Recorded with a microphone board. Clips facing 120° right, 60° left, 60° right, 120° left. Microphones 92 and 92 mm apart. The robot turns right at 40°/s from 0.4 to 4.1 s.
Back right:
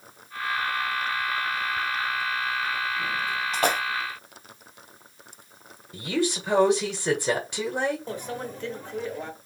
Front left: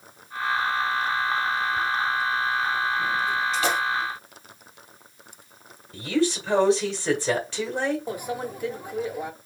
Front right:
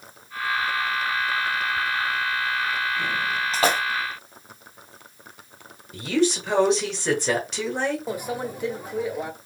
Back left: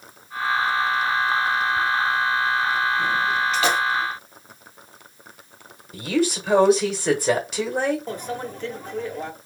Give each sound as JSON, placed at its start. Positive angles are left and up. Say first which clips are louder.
{"t": 3.5, "sound": "a splash", "louder": "back right 4 dB, front right 3 dB", "azimuth_deg": -100, "distance_m": 1.0}
{"t": 5.9, "sound": "a woman speaking", "louder": "front left 3 dB, even", "azimuth_deg": -165, "distance_m": 1.4}
{"t": 8.1, "sound": "a microwave", "louder": "front left 3 dB, front right 1 dB", "azimuth_deg": 0, "distance_m": 0.7}